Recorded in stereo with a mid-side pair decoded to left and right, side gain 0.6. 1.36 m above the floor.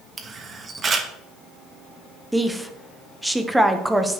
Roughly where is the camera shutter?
Ahead right.